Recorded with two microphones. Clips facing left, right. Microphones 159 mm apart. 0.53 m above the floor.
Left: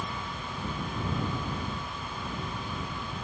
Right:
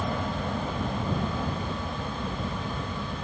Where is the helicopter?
65° right (ahead or behind); by 3.2 s 60° right (ahead or behind).